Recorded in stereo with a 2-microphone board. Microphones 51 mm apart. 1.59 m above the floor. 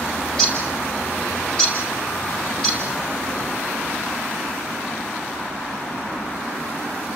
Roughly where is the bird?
Centre.